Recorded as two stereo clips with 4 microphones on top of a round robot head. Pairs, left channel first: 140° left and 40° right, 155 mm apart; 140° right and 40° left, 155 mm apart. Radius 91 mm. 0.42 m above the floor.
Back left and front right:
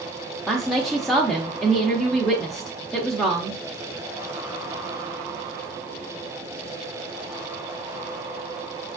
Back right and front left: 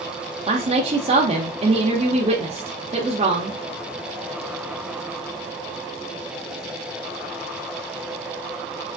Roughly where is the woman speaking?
Ahead left.